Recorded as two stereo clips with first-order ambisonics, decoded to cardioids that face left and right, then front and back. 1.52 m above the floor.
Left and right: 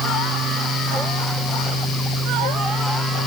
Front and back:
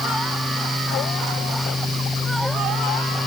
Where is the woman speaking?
I don't hear a woman speaking.